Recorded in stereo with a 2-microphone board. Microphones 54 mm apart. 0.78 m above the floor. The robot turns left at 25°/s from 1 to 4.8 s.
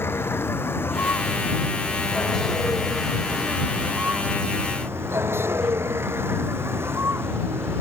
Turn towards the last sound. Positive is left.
turn(degrees=-45)